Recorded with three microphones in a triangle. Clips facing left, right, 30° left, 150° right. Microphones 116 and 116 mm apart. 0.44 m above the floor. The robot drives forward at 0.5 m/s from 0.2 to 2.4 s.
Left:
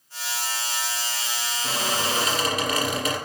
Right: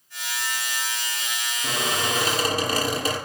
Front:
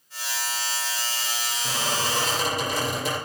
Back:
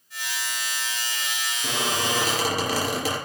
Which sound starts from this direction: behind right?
A squeak, at 1.6 s.